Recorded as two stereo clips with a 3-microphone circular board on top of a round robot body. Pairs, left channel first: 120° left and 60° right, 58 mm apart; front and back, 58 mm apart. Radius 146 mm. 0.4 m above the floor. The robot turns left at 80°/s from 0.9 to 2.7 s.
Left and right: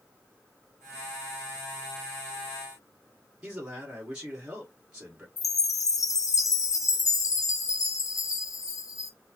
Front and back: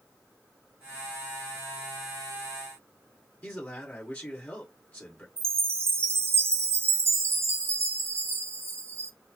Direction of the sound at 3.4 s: 5° right.